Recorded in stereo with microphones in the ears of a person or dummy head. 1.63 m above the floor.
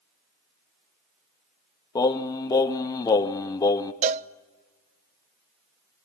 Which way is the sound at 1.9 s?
20° left (ahead or behind).